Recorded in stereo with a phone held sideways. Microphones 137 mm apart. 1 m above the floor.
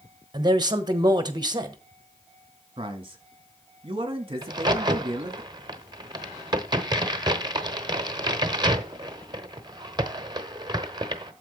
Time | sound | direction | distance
0.3 | a man speaking | 30° right (ahead or behind) | 1.1 m
2.8 | a man speaking | 40° right (ahead or behind) | 1.5 m
4.4 | a crack | 30° right (ahead or behind) | 0.9 m